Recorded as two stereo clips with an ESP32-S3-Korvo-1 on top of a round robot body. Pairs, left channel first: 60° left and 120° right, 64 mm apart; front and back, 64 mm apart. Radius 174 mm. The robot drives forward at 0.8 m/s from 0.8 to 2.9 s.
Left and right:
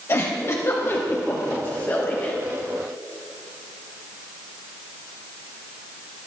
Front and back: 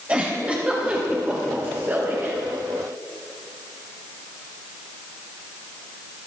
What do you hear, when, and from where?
0.1 s a giggle: 110° left, 3.5 m; by 2.3 s 125° left, 4 m